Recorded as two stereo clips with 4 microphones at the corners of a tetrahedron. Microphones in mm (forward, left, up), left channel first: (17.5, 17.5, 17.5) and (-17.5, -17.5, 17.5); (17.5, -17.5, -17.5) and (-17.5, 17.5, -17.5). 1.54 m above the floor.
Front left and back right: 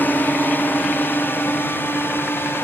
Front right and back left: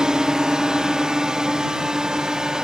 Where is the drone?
65° left; by 2.6 s 60° left.